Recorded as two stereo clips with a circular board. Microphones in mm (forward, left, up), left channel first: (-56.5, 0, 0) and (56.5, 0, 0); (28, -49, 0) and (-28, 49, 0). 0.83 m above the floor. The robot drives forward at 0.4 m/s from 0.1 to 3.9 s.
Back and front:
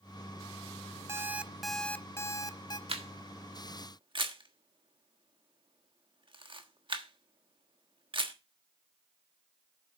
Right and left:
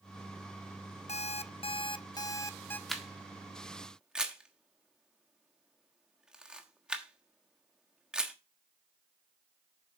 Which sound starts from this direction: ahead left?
A camera shutter, at 2.9 s.